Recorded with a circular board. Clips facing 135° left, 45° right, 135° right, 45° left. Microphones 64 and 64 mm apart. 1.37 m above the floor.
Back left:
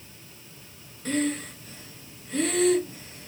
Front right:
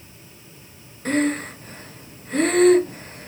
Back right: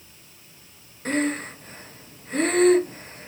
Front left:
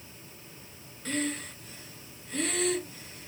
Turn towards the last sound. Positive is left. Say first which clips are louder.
# front right 6 dB, back right 8 dB
turn(degrees=-90)